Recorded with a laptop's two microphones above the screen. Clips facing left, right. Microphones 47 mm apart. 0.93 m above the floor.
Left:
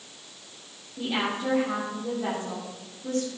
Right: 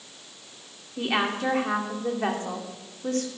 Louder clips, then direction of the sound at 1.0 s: Right 3 dB; 70° right (ahead or behind).